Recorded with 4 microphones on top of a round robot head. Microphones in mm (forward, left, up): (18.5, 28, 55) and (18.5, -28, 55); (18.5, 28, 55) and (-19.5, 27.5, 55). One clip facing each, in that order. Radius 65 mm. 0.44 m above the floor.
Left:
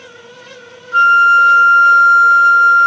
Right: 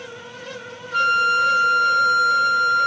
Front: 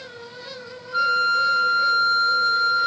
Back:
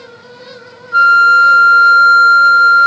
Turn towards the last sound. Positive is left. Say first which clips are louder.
# left 10 dB, back 13 dB
turn(degrees=155)